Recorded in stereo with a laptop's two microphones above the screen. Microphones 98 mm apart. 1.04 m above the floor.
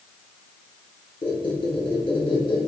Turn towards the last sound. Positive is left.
turn(degrees=50)  # may be behind; listen again after turning